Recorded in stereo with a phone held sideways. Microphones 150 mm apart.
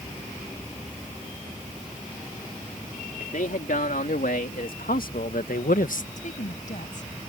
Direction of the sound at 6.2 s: 65° left (ahead or behind).